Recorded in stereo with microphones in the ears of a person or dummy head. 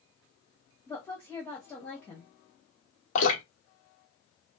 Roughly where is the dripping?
Left.